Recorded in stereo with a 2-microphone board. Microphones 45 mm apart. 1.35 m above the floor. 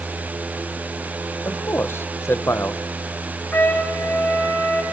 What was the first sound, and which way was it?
A man speaking, 70° left (ahead or behind).